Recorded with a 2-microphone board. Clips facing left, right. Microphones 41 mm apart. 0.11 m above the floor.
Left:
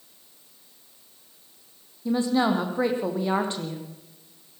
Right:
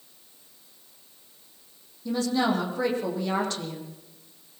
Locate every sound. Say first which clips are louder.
2.0 s a woman speaking: left 2 dB; 20° left (ahead or behind), 4.5 m